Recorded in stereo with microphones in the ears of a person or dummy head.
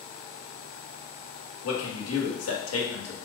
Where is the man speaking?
80° left, 1.5 m.